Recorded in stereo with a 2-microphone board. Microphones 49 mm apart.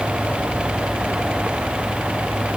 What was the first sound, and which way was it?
Only background noise.